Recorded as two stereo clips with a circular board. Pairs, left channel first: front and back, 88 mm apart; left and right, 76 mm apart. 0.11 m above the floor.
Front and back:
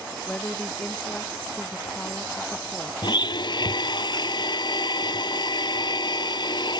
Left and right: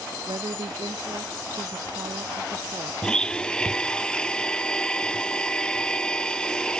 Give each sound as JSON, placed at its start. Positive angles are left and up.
{"t": 0.3, "sound": "a woman speaking", "azimuth_deg": -70}
{"t": 3.0, "sound": "a blender", "azimuth_deg": 10}